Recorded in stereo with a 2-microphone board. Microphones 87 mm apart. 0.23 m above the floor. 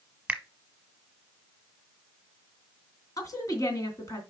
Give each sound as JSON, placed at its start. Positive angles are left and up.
{"t": 0.3, "sound": "a finger snap", "side_deg": -10, "distance_m": 1.1}
{"t": 3.2, "sound": "a woman speaking", "side_deg": 40, "distance_m": 2.5}